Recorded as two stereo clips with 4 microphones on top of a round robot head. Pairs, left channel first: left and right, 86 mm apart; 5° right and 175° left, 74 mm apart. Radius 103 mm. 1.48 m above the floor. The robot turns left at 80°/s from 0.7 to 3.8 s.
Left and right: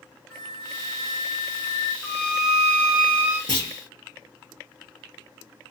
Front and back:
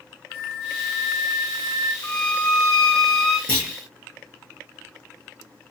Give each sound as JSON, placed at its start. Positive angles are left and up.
{"t": 0.3, "sound": "a flute", "azimuth_deg": 10, "distance_m": 1.0}
{"t": 2.0, "sound": "a violin", "azimuth_deg": 0, "distance_m": 1.9}
{"t": 3.5, "sound": "a clunk", "azimuth_deg": -50, "distance_m": 0.8}